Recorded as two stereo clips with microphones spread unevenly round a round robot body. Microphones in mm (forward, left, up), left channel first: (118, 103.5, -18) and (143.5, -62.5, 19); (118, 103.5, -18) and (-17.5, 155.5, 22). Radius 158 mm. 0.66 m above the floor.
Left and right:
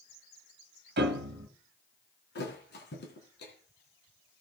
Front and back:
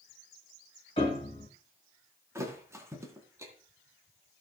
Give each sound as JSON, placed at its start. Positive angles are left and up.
{"t": 1.0, "sound": "a piano", "azimuth_deg": -100, "distance_m": 1.3}
{"t": 2.4, "sound": "a thud", "azimuth_deg": 90, "distance_m": 3.5}